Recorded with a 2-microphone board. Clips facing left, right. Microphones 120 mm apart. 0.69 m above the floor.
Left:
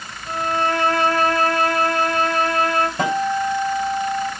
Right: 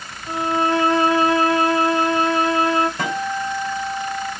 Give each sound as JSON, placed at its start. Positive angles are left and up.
{"t": 0.3, "sound": "a violin", "side_deg": -15, "distance_m": 3.5}
{"t": 3.0, "sound": "a guitar", "side_deg": 25, "distance_m": 3.0}